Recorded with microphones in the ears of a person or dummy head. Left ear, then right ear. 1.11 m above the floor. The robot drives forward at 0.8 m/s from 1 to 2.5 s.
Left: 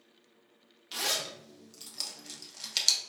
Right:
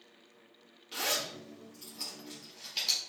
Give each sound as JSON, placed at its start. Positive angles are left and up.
{"t": 0.9, "sound": "a zipper", "side_deg": 35, "distance_m": 1.7}